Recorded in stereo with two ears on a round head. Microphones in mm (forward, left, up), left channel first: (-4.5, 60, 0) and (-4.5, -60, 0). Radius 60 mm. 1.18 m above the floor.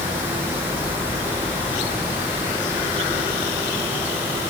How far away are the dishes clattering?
I don't hear dishes clattering.